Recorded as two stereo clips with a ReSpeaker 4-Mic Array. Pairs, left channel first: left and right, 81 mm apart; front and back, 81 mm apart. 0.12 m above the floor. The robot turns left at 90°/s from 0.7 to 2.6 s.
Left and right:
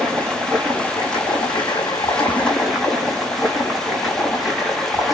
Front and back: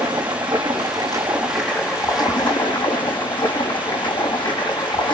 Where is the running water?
170° left, 5.5 m; by 5.2 s straight ahead, 5.5 m.